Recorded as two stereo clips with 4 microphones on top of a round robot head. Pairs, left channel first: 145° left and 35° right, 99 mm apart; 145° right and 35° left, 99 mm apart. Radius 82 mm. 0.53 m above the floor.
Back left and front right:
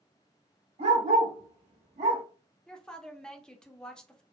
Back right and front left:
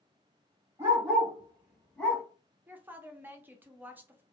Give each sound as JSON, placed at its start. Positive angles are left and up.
{"t": 0.8, "sound": "a dog barking", "azimuth_deg": -30, "distance_m": 1.4}
{"t": 2.7, "sound": "a woman speaking", "azimuth_deg": 75, "distance_m": 0.7}